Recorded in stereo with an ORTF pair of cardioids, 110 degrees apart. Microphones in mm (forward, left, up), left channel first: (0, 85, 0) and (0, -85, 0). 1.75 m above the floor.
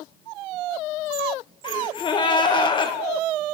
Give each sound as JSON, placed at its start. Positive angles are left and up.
{"t": 1.6, "sound": "a gasp", "azimuth_deg": 30, "distance_m": 1.6}